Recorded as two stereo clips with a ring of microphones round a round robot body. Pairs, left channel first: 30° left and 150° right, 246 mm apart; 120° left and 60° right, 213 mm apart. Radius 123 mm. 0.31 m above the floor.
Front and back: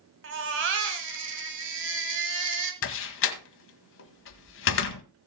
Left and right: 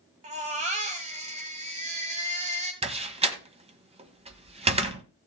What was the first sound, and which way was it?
A baby crying, 120° right.